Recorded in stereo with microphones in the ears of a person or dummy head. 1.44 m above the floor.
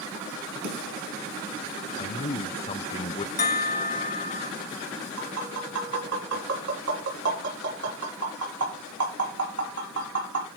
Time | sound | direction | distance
0.6 | a snare drum | 60° right (ahead or behind) | 5 m
2.0 | a man speaking | 25° left (ahead or behind) | 0.6 m
3.4 | a bell | 30° left (ahead or behind) | 1.0 m
5.2 | tapping | 85° right | 4.5 m